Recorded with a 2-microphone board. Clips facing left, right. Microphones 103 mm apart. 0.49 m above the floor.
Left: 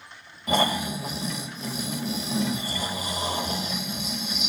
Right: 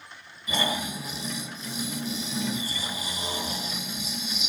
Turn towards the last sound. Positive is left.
turn(degrees=55)  # may be behind; listen again after turning